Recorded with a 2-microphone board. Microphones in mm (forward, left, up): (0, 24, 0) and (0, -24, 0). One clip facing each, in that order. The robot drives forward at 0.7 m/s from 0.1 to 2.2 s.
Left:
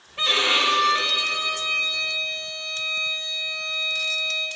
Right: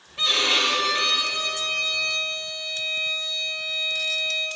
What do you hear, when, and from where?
0.2 s a violin: 25° left (ahead or behind), 1.6 m; by 4.5 s 15° left (ahead or behind), 3 m